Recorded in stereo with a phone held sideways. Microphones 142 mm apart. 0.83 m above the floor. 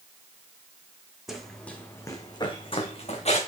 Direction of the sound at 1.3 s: 5° right (ahead or behind).